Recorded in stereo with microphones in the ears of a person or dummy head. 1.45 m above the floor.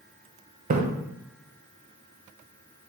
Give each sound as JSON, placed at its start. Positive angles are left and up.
{"t": 0.7, "sound": "a splash", "side_deg": -40, "distance_m": 0.6}